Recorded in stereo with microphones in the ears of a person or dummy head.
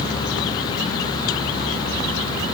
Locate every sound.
Only background noise.